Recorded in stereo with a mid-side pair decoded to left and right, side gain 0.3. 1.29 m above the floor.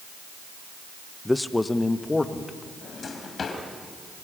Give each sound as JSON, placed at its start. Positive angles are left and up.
{"t": 1.2, "sound": "a man speaking", "azimuth_deg": 15, "distance_m": 1.0}
{"t": 2.8, "sound": "a drawer", "azimuth_deg": 60, "distance_m": 4.0}